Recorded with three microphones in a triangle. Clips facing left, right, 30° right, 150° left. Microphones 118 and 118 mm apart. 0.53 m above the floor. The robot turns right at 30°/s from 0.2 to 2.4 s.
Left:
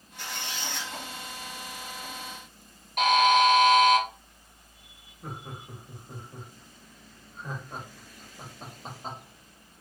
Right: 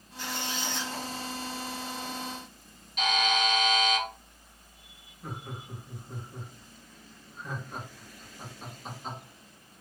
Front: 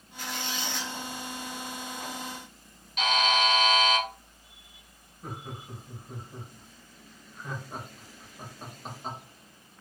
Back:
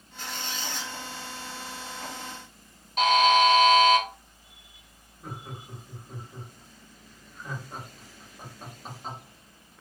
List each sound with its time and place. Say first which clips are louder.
0.2 s a squeak: right 3 dB, front 1 dB; 90° left, 0.9 m; by 0.9 s 115° left, 0.9 m
3.0 s a buzzer: left 8 dB, back 6 dB; 110° left, 1.1 m
5.2 s laughter: even, front 1 dB; 55° left, 1.2 m